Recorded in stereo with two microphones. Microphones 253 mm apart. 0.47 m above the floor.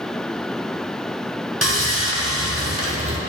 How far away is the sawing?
About 2 m.